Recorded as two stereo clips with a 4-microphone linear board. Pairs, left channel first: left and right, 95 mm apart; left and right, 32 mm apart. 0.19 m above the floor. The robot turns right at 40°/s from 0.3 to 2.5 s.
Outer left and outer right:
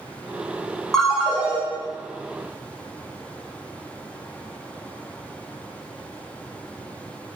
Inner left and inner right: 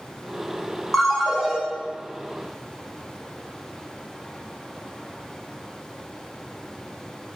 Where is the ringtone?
Centre (ahead or behind), 0.6 m; by 1.6 s 20° right (ahead or behind), 0.6 m.